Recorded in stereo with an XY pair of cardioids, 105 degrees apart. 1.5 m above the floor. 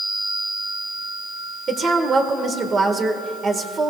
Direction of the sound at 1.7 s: 45° right.